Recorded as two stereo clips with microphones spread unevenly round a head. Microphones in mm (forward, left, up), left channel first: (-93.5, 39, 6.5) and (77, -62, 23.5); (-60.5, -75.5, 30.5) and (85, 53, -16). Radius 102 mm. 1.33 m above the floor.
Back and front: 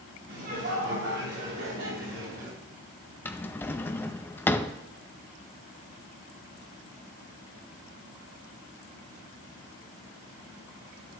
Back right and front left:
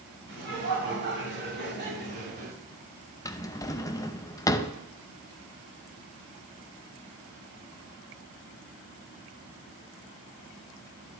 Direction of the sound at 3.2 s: 130° right.